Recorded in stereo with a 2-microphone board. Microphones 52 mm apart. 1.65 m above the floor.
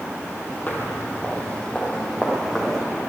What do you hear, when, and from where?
0.7 s footsteps: 35° left (ahead or behind), 2 m; by 2.9 s centre (ahead or behind), 3.5 m